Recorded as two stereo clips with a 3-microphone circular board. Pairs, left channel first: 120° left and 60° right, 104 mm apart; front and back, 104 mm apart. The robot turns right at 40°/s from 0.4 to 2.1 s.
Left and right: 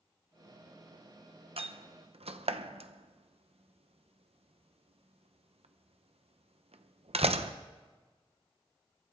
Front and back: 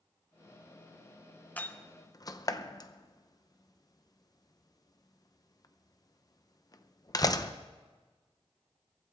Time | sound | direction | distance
1.6 | a door slam | 75° right | 0.7 m